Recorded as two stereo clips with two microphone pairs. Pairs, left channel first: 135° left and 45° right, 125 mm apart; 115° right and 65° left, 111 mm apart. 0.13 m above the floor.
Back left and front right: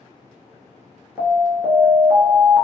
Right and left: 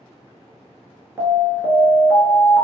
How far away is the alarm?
About 1.2 m.